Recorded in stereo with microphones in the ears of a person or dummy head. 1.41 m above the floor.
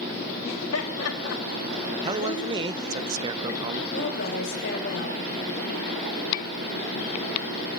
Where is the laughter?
85° left, 3.5 m.